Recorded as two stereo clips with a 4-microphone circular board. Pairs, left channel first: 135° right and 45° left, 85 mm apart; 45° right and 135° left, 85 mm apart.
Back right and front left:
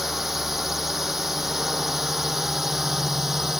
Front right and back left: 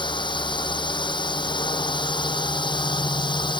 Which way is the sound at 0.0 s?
45° right.